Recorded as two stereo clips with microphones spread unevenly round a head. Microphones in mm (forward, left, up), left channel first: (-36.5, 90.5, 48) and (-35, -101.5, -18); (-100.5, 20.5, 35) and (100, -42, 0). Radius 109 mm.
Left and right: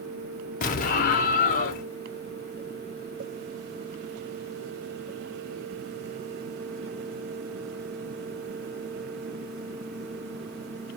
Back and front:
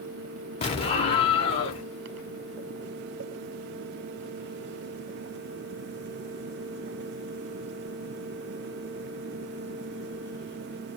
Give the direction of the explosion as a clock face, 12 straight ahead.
8 o'clock.